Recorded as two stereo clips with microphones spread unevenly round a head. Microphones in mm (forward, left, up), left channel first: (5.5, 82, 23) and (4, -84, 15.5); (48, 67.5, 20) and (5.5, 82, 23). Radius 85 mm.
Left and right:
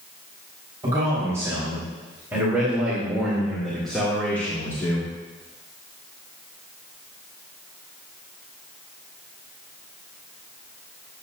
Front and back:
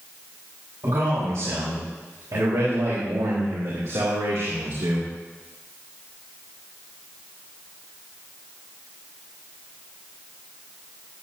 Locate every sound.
0.8 s a man speaking: 160° right, 5.5 m; by 5.1 s 160° left, 2.5 m